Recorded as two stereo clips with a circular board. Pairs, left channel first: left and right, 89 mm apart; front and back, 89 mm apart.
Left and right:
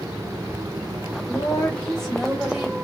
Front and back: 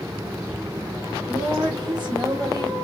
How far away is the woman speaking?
About 2 m.